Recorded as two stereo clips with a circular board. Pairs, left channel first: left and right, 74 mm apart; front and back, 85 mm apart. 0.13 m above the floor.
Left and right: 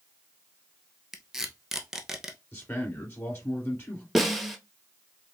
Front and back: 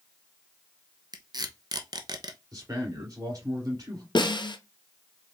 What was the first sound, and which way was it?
Tape being pulled, 175° right.